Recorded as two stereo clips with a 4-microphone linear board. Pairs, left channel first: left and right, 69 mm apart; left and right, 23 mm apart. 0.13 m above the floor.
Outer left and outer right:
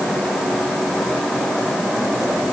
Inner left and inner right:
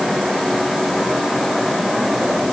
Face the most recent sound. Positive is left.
No sound to turn to.